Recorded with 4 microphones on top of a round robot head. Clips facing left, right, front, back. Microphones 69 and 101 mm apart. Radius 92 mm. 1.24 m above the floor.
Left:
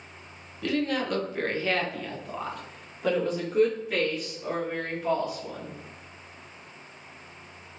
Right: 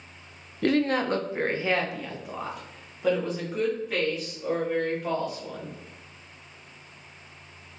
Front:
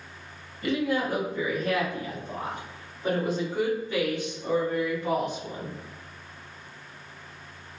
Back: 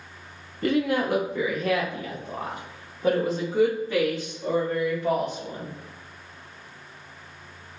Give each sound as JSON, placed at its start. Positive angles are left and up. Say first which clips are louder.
{"t": 0.6, "sound": "a woman speaking", "louder": "right 4 dB, back 3 dB", "azimuth_deg": -130, "distance_m": 0.5}